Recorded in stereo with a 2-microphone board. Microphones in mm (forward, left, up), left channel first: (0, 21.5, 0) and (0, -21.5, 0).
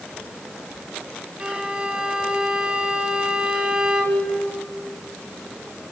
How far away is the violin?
About 2.5 m.